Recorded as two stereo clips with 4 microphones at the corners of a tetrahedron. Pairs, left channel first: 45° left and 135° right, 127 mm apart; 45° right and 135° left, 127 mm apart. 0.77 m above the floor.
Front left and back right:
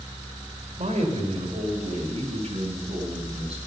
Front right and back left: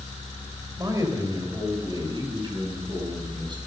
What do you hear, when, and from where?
0.8 s a man speaking: 160° right, 3 m; by 3.6 s 170° right, 6 m